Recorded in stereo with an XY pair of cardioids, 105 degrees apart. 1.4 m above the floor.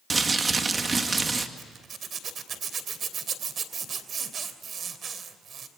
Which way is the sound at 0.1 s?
30° right.